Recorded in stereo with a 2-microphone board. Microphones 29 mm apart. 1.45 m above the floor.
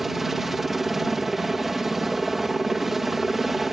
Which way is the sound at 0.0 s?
10° right (ahead or behind).